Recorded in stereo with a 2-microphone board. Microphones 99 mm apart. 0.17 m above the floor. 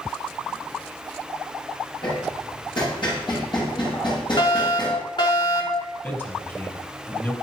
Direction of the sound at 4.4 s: 50° left (ahead or behind).